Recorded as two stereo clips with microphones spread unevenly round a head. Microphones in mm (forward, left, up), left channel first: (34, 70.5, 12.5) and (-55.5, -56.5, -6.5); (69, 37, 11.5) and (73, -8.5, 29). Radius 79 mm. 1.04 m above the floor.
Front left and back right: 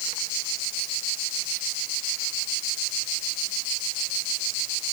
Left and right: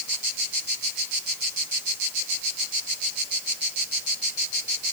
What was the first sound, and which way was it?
Only background noise.